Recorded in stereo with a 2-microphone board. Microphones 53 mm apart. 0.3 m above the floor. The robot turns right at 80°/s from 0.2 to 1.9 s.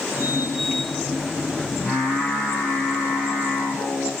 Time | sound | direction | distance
1.8 | singing | 25° left (ahead or behind) | 2.5 m